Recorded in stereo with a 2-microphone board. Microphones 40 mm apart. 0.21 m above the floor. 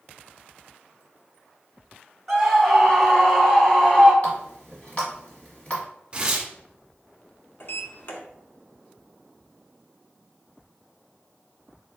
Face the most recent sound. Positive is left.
turn(degrees=55)  # may be behind; listen again after turning